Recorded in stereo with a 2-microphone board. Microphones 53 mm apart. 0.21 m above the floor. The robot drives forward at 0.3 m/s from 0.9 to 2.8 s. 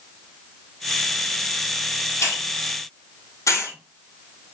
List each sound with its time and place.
2.2 s a hiss: 65° left (ahead or behind), 1.0 m; by 3.8 s 75° left (ahead or behind), 1.0 m